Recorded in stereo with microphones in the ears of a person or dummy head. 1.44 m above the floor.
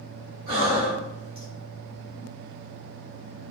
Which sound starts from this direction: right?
Breathing, at 0.5 s.